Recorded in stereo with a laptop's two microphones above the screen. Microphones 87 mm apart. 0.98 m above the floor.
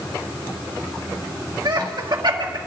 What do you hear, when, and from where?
1.6 s laughter: 60° right (ahead or behind), 2 m